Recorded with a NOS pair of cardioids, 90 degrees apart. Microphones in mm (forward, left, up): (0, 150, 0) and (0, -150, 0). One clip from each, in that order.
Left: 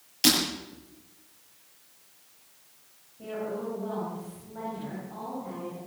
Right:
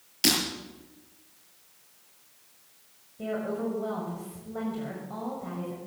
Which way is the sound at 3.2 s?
65° right.